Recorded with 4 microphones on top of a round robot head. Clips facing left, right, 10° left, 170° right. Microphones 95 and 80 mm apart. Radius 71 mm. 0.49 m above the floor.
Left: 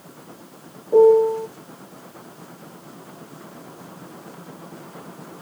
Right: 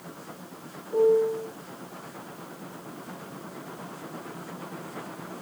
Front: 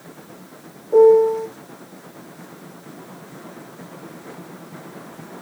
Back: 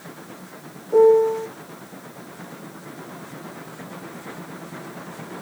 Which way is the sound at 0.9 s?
95° left.